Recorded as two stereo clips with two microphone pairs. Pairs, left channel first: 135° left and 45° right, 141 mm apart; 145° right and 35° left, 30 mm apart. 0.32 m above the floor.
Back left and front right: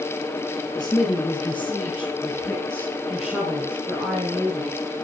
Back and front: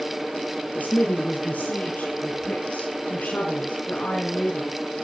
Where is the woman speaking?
155° right, 6 m; by 4.8 s 115° right, 4 m.